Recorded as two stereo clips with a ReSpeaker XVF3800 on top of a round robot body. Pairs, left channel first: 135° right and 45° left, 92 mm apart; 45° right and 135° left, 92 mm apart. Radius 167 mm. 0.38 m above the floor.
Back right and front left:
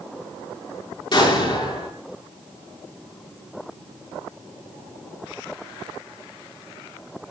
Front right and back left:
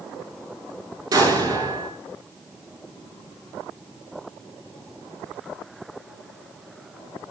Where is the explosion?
175° right, 7 m.